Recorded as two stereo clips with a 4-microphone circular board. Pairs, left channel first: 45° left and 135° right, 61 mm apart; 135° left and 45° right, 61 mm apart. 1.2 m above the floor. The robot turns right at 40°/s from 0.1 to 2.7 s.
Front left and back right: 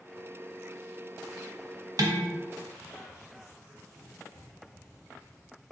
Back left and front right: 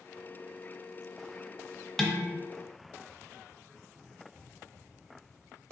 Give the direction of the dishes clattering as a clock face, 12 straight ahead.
5 o'clock.